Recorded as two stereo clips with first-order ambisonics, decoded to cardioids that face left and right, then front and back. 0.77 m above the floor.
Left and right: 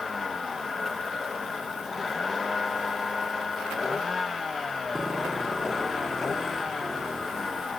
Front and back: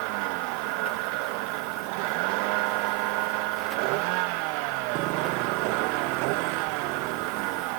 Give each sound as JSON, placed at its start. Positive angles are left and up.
{"t": 0.0, "sound": "a vehicle", "azimuth_deg": 165}